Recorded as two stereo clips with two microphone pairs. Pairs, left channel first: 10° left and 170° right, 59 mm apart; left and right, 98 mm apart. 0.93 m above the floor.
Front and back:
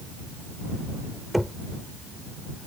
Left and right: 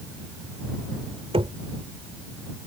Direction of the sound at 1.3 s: 85° right.